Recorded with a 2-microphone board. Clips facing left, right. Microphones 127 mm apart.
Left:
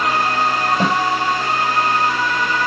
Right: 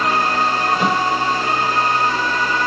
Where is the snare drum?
35° left (ahead or behind), 6.5 m.